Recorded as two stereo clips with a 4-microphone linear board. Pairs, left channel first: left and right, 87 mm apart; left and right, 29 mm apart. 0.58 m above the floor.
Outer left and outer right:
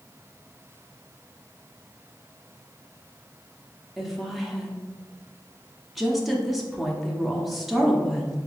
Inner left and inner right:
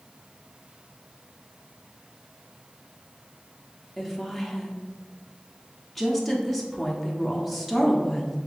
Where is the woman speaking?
Centre (ahead or behind), 0.7 m.